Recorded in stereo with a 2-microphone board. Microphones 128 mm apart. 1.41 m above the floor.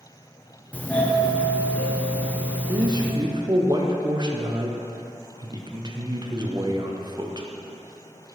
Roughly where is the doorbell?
Centre.